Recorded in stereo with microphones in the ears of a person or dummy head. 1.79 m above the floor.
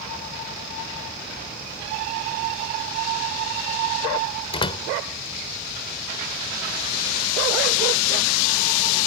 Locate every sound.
4.5 s a door slam: 30° left (ahead or behind)